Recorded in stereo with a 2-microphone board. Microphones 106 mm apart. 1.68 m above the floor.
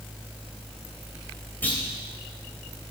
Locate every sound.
1.6 s a clunk: 15° left (ahead or behind), 3 m